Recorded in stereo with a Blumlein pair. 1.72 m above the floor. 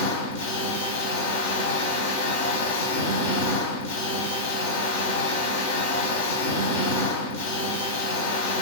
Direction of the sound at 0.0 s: 60° left.